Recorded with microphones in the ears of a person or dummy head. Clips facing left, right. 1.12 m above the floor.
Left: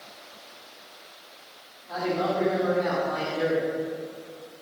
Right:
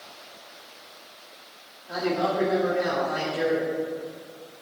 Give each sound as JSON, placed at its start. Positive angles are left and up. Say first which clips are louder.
{"t": 1.9, "sound": "a man speaking", "louder": "right 1 dB", "side_deg": -15, "distance_m": 2.5}